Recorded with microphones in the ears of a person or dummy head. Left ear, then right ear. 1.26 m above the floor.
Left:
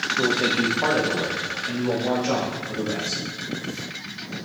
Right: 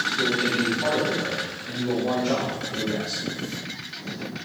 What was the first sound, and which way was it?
A man speaking, 55° left (ahead or behind).